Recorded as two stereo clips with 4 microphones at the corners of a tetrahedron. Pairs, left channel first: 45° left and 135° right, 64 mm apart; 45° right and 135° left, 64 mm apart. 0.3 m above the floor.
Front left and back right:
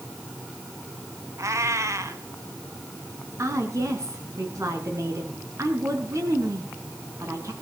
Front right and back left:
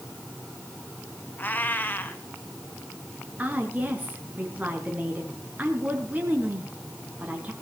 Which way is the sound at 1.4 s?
105° right.